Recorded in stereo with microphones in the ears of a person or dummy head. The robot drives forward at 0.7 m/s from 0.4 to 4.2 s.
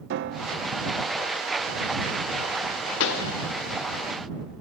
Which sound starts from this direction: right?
A piano, at 0.1 s.